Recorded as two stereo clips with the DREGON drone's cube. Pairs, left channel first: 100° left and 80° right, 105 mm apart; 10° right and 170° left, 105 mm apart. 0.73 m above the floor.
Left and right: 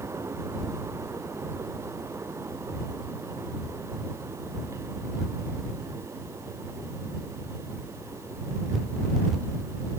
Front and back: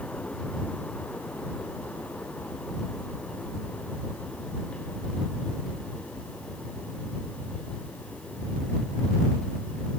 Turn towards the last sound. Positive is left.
No sound to turn to.